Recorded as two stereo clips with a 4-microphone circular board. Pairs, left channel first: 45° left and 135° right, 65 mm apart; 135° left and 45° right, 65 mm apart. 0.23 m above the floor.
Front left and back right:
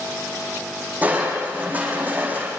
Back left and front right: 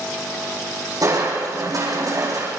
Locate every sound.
1.0 s crushing: 70° right, 6 m